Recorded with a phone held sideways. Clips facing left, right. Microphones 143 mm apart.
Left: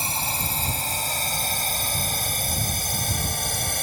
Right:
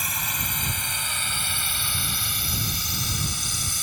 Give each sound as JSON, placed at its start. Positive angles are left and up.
{"t": 0.0, "sound": "a drone", "side_deg": 30}